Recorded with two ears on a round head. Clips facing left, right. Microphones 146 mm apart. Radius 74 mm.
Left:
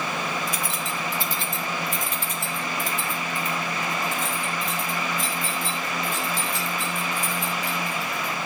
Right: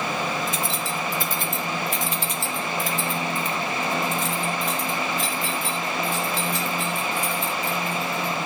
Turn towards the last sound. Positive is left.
turn(degrees=-50)  # may be behind; listen again after turning